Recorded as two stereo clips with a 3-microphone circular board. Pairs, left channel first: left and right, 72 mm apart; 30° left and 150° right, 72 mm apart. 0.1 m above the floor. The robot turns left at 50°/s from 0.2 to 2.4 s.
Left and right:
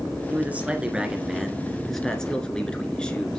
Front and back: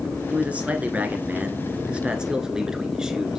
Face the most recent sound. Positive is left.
turn(degrees=145)